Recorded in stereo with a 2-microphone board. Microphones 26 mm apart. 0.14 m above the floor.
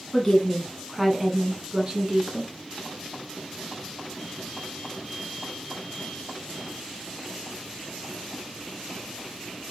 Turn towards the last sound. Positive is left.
turn(degrees=-40)  # may be behind; listen again after turning